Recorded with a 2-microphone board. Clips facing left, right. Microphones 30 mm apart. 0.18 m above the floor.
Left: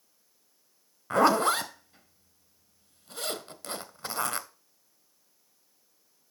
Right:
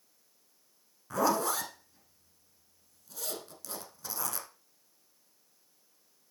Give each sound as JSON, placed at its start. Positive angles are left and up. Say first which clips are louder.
{"t": 1.1, "sound": "a zipper", "louder": "left 6 dB", "side_deg": 45, "distance_m": 0.8}